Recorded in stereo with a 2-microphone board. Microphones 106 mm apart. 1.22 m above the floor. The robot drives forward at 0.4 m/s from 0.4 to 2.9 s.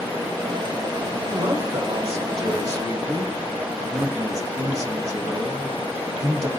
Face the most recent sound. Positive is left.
turn(degrees=-90)